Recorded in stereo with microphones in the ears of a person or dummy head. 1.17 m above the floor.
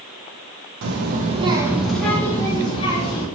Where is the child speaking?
65° right (ahead or behind), 0.7 m; by 3.2 s 30° left (ahead or behind), 1.5 m.